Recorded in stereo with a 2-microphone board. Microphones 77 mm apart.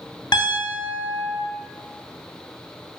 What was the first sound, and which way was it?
A piano, 60° left (ahead or behind).